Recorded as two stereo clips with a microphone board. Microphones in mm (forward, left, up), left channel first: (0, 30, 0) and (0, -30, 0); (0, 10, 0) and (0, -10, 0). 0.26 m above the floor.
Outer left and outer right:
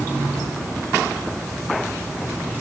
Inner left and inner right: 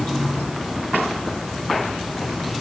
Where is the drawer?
I don't hear a drawer.